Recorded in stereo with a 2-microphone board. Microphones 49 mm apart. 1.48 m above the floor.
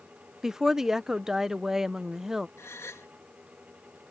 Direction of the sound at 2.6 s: 85° left.